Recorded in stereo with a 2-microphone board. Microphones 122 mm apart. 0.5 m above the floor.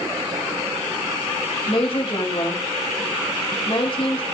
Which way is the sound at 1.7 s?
50° left (ahead or behind).